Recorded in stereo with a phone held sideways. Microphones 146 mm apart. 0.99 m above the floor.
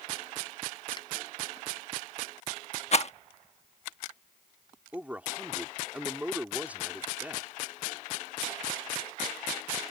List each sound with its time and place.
1.0 s a finger snap: 30° left (ahead or behind)
2.9 s a rattle: 50° left (ahead or behind)
4.9 s a man speaking: 10° right (ahead or behind)